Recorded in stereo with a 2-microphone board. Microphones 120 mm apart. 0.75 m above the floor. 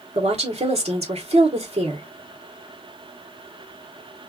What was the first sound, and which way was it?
A woman speaking, 60° right (ahead or behind).